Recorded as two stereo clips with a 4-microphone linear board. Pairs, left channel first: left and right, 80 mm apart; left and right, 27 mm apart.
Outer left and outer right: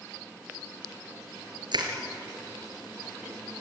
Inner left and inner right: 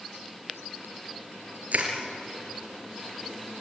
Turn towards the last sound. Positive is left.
turn(degrees=-65)  # may be behind; listen again after turning